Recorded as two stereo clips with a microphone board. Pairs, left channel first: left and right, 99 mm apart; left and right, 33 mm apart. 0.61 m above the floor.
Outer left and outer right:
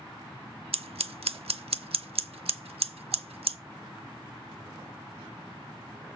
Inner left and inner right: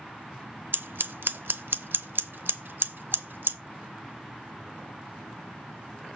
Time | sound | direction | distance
0.7 | scissors | 75° right (ahead or behind) | 0.7 m